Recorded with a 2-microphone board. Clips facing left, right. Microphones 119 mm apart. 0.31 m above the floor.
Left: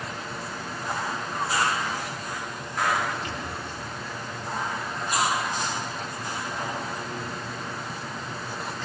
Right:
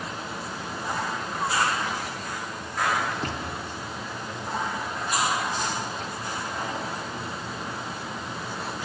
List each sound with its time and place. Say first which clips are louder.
3.1 s a door slam: right 1 dB; 50° right (ahead or behind), 5 m